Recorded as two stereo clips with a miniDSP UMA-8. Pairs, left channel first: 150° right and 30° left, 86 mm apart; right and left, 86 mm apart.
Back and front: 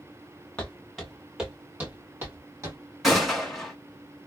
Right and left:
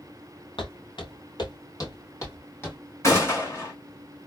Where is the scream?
No scream in this recording.